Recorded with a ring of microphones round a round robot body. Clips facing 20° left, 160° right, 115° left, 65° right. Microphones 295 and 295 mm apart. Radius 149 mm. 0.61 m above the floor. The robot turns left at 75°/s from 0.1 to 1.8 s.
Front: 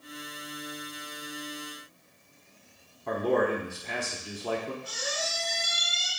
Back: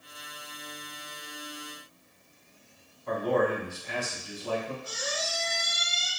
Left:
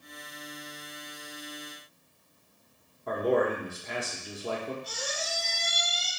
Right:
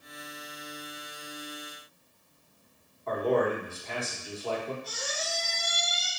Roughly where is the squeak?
Behind left.